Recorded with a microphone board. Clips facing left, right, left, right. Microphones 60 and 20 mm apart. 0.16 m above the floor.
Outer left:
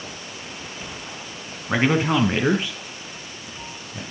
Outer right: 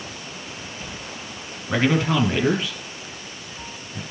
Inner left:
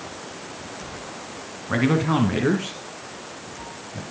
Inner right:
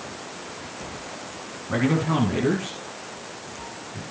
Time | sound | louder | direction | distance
1.7 | a man speaking | outer left 1 dB, inner left 2 dB | 20° left (ahead or behind) | 1.6 m